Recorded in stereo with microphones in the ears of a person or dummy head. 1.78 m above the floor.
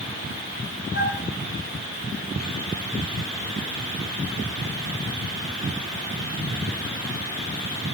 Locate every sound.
0.9 s a flute: 35° right (ahead or behind), 2 m